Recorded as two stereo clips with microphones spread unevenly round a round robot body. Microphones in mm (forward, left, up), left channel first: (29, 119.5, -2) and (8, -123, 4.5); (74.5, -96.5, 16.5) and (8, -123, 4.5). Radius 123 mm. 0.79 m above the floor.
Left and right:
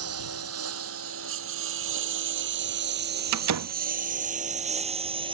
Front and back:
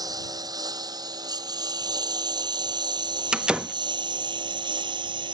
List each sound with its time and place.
0.0 s a lawn mower: 130° right; by 5.3 s 165° right
3.3 s a door slam: 85° right